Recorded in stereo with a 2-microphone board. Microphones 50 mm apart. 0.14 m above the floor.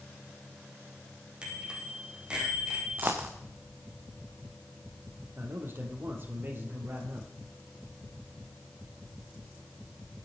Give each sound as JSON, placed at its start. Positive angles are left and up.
{"t": 1.4, "sound": "a bicycle bell", "side_deg": -20, "distance_m": 4.5}
{"t": 3.0, "sound": "a dropped coin", "side_deg": -40, "distance_m": 2.5}
{"t": 5.4, "sound": "a man speaking", "side_deg": -45, "distance_m": 4.0}